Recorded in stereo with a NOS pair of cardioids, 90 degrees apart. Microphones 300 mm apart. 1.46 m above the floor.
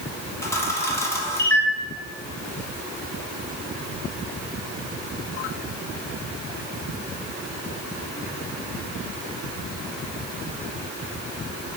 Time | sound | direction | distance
0.4 | a camera shutter | 10° left | 0.5 m